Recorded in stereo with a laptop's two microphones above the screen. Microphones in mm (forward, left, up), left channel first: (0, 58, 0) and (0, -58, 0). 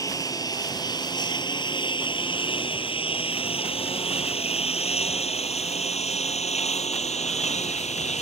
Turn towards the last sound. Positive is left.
turn(degrees=75)  # may be behind; listen again after turning